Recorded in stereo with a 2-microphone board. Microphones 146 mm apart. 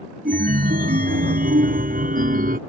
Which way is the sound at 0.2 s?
80° right.